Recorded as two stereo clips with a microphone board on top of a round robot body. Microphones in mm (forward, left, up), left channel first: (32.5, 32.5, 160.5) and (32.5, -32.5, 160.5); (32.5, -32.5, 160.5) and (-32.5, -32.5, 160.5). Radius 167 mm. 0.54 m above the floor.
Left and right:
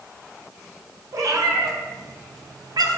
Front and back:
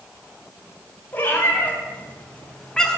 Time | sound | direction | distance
1.1 | a cat meowing | 60° right | 3 m